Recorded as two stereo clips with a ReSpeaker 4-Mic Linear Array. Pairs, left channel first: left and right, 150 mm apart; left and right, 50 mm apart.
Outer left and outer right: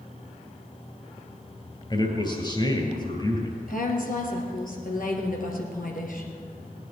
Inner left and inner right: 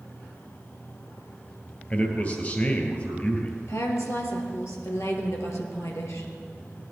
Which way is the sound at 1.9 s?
30° left (ahead or behind).